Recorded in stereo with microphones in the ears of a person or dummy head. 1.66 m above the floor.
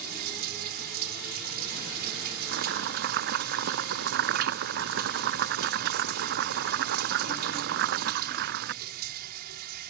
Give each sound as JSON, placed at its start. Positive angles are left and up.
{"t": 0.0, "sound": "running water", "side_deg": -50}
{"t": 2.5, "sound": "chopping", "side_deg": -55}